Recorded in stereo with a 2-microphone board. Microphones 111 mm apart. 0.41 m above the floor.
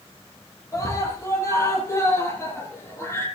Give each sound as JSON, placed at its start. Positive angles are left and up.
{"t": 0.7, "sound": "a scream", "side_deg": 25, "distance_m": 9.5}